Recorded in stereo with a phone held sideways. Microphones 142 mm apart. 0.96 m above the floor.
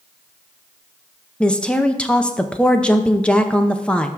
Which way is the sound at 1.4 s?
10° left (ahead or behind).